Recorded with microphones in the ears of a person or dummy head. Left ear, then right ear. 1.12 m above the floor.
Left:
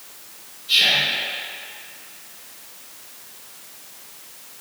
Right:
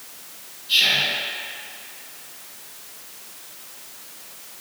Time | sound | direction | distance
0.7 | whispering | 75° left (ahead or behind) | 1.6 m